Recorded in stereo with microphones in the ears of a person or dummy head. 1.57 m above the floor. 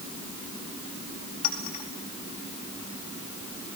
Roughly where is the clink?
Left.